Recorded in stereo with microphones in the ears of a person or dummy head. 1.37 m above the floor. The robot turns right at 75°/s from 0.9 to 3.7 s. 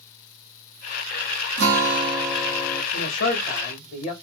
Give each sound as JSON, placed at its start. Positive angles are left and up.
{"t": 1.6, "sound": "a guitar", "azimuth_deg": -70, "distance_m": 1.1}
{"t": 2.9, "sound": "a man speaking", "azimuth_deg": 85, "distance_m": 1.6}